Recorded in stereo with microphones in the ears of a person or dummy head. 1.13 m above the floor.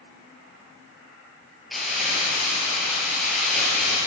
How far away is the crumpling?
About 5 m.